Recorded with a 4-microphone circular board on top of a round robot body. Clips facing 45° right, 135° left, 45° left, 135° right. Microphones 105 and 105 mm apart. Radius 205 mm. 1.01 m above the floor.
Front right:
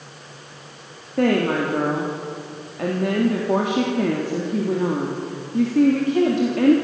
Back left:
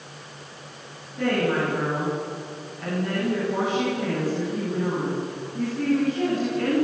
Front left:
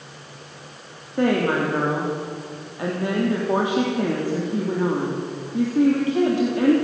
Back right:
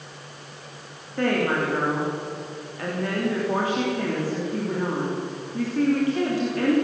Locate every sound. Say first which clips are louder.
1.2 s a woman speaking: front right 4 dB, front left 3 dB; 25° right, 3 m